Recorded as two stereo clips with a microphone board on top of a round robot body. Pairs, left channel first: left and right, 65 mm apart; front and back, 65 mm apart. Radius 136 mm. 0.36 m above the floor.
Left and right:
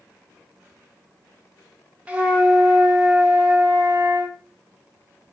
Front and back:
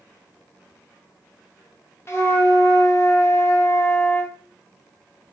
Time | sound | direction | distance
2.1 | a flute | 25° right | 0.9 m